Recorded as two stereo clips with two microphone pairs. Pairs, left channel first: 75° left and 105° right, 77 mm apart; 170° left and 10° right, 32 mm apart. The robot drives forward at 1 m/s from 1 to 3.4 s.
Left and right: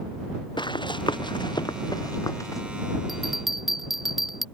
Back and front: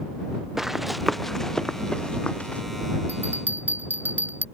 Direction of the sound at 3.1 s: 20° right.